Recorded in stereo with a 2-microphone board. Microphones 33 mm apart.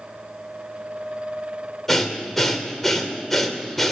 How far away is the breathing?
About 1.4 m.